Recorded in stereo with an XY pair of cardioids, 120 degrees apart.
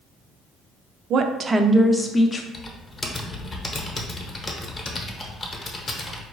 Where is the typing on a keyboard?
30° left, 0.9 m.